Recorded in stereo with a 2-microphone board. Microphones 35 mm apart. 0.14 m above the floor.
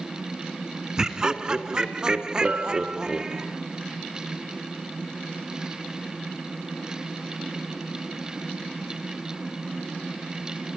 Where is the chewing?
No chewing in this recording.